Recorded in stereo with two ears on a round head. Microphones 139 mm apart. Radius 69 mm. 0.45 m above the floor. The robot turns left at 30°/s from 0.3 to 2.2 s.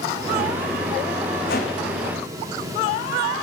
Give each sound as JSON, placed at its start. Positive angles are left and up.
{"t": 1.5, "sound": "a whoosh", "side_deg": 70, "distance_m": 6.5}